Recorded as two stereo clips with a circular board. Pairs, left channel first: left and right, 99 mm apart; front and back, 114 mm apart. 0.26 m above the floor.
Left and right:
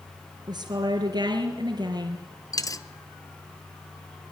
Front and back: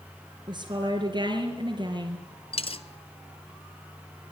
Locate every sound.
0.5 s a woman speaking: 135° right, 4 m
2.5 s a dropped coin: 35° left, 0.9 m